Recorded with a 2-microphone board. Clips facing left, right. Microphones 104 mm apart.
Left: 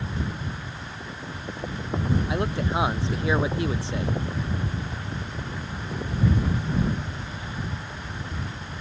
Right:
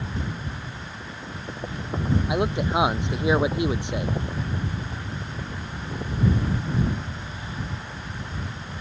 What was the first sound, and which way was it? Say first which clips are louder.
A man speaking: right 3 dB; 15° right (ahead or behind).